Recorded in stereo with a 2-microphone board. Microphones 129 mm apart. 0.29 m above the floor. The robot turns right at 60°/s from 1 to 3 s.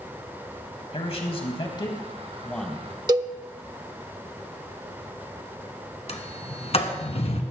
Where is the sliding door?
55° left (ahead or behind), 1.6 m.